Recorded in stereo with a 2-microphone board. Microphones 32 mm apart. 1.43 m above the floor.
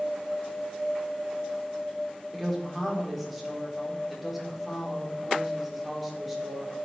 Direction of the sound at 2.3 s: 5° right (ahead or behind).